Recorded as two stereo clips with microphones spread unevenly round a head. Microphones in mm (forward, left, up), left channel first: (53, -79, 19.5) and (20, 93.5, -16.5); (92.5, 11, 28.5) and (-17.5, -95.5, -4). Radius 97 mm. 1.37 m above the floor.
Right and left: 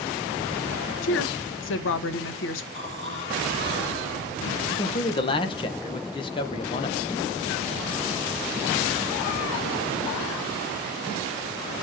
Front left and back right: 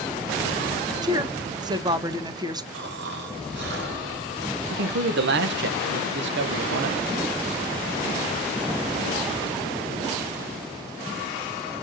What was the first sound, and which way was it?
A woman speaking, 70° right.